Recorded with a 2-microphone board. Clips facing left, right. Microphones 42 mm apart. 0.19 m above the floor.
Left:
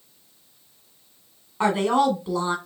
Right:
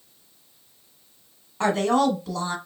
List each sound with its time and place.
1.6 s a woman speaking: 15° left (ahead or behind), 1.2 m